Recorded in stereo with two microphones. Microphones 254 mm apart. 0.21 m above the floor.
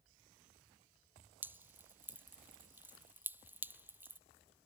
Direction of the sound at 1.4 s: 10° right (ahead or behind).